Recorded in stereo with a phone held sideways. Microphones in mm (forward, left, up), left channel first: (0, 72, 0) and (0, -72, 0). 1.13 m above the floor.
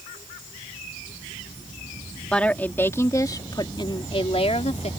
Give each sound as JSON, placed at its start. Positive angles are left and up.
{"t": 2.3, "sound": "a woman speaking", "side_deg": 5}